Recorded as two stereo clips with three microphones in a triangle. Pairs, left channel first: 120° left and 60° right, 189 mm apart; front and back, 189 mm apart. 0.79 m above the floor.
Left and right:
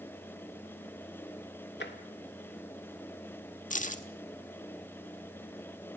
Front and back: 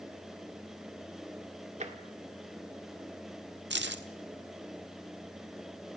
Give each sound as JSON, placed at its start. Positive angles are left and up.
{"t": 1.8, "sound": "tapping", "azimuth_deg": 130, "distance_m": 1.9}
{"t": 3.7, "sound": "keys jangling", "azimuth_deg": 165, "distance_m": 1.2}